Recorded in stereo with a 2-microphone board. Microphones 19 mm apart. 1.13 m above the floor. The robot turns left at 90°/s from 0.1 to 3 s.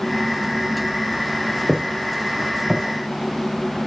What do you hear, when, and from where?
1.7 s footsteps: 30° right (ahead or behind), 1.9 m; by 3.8 s 70° right (ahead or behind), 3 m